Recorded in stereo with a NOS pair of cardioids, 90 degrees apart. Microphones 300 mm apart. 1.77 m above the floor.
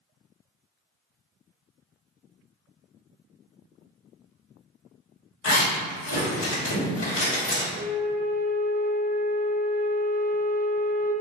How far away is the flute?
About 0.9 m.